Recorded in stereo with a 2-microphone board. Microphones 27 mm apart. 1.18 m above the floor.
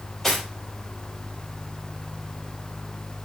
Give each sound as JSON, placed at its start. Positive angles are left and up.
{"t": 0.2, "sound": "cutlery clinking", "side_deg": 5, "distance_m": 3.5}